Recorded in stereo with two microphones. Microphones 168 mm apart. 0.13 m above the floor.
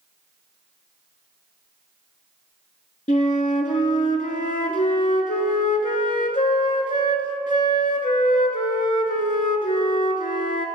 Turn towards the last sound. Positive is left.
turn(degrees=50)  # may be behind; listen again after turning